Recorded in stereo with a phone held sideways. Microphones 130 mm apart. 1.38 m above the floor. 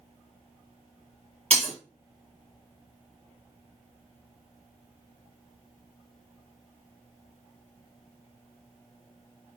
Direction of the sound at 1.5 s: 50° right (ahead or behind).